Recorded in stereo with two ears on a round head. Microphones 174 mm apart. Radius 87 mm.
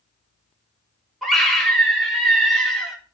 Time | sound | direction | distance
1.2 | a scream | centre (ahead or behind) | 3.5 m